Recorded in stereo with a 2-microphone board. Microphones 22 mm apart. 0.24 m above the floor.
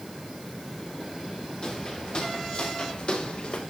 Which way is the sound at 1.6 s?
50° left (ahead or behind).